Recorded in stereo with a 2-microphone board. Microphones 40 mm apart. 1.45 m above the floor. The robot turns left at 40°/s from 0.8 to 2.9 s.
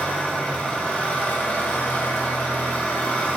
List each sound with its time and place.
0.0 s an engine running: 135° left, 0.9 m; by 3.4 s 50° left, 0.9 m